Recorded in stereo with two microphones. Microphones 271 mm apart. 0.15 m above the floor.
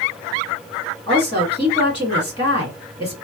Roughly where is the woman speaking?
Centre.